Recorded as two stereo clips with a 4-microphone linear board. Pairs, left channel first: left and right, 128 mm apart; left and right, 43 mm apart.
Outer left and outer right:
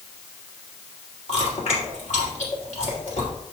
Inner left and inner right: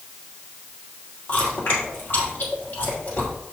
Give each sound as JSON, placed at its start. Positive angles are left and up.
{"t": 1.3, "sound": "chewing", "side_deg": 65, "distance_m": 3.0}